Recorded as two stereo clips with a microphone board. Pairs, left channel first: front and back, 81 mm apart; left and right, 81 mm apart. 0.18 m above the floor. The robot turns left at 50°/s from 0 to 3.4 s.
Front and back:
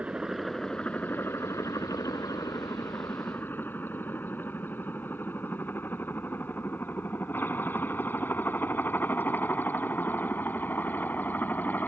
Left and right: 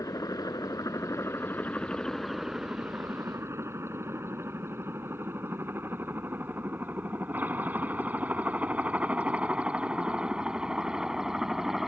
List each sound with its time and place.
0.0 s a helicopter: 110° left; by 11.9 s 10° right